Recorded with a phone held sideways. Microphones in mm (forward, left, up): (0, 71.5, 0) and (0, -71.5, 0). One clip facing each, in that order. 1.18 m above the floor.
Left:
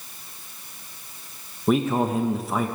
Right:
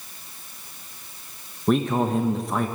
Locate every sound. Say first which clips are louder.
1.7 s a man speaking: even; 5° left (ahead or behind), 0.7 m